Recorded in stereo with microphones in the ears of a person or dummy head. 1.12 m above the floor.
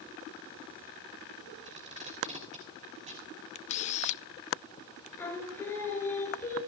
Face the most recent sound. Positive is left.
turn(degrees=15)  # may be behind; listen again after turning